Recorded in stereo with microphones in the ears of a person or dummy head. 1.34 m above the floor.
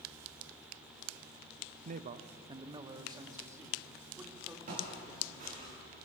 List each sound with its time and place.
1.9 s a man speaking: 55° right (ahead or behind), 0.7 m; by 5.7 s 15° right (ahead or behind), 4 m
4.7 s footsteps: 50° right (ahead or behind), 8 m; by 5.7 s 45° right (ahead or behind), 8 m